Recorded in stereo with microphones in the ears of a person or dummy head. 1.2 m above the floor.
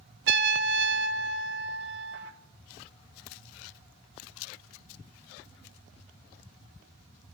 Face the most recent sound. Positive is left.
turn(degrees=-60)  # may be behind; listen again after turning